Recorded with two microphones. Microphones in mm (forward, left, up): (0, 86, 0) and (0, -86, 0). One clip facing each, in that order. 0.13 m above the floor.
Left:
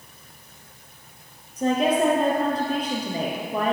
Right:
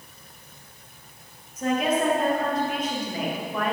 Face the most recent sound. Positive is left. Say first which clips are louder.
# left 3 dB
turn(degrees=35)  # may be behind; listen again after turning